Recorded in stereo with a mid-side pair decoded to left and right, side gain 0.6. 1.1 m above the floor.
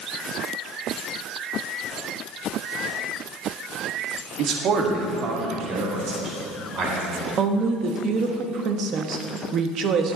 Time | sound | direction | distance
4.4 | a man speaking | 55° right | 1.5 m
7.4 | a woman speaking | 50° right | 1.3 m